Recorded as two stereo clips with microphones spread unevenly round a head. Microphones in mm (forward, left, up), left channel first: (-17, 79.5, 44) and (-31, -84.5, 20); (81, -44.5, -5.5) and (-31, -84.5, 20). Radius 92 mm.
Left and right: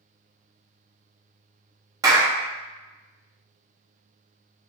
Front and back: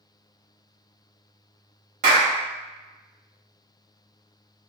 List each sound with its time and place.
2.0 s a clap: 165° right, 1.1 m